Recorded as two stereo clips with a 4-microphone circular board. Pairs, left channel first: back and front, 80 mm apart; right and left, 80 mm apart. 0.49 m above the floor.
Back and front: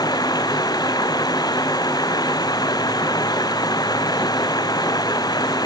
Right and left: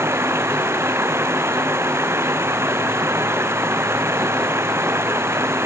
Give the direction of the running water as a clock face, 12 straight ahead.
7 o'clock.